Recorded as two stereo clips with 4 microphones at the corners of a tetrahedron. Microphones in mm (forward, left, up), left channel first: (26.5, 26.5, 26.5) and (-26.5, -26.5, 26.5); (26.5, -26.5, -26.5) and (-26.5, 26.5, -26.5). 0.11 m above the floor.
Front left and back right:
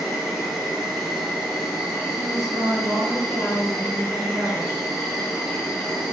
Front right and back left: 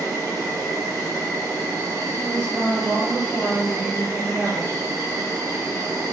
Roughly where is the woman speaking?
Behind right.